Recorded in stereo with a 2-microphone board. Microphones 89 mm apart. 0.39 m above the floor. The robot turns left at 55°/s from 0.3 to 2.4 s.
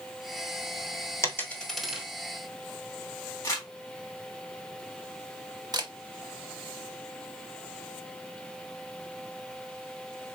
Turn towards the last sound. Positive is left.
turn(degrees=-50)  # may be behind; listen again after turning